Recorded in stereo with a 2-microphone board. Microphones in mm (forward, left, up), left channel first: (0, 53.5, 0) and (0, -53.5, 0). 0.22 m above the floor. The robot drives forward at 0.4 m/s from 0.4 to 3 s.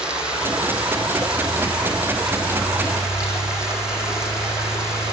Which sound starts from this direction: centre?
Running water, at 0.0 s.